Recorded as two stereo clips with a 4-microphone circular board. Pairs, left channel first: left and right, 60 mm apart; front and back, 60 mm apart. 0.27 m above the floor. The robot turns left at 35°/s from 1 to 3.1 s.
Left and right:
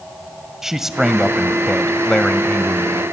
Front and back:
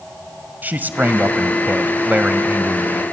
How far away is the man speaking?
About 1.2 m.